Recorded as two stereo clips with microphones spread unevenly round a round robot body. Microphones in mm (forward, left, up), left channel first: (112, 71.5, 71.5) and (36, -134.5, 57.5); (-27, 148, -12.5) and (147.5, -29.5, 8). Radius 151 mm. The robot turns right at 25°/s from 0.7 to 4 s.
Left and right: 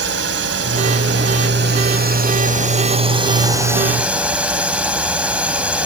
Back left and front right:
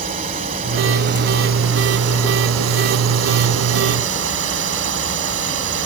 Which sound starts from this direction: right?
A drone, at 0.0 s.